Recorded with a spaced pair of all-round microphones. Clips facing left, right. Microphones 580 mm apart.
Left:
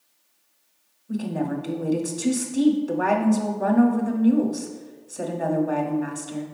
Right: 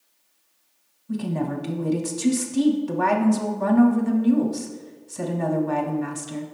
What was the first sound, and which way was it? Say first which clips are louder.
A woman speaking: even; 25° right (ahead or behind).